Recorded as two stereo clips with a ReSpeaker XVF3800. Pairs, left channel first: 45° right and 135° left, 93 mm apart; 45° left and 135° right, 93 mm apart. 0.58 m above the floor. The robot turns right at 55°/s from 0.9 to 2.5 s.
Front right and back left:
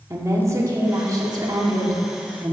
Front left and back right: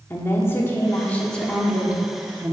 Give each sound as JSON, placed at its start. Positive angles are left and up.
{"t": 0.1, "sound": "a woman speaking", "azimuth_deg": 95, "distance_m": 1.6}